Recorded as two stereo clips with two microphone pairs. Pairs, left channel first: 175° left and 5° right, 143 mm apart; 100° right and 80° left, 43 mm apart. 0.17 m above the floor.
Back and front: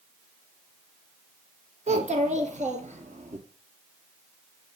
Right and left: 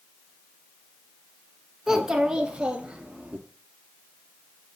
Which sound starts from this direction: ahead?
A child speaking, at 1.9 s.